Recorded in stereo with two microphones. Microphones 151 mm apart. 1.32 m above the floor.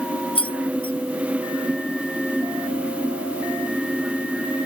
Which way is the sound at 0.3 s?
35° left (ahead or behind).